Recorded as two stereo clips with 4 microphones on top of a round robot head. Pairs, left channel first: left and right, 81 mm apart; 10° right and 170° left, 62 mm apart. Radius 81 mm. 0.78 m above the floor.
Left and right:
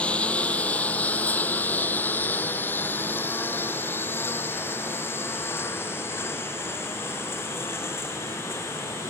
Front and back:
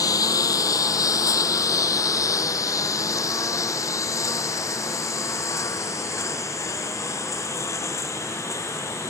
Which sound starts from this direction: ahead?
A lawn mower, at 0.0 s.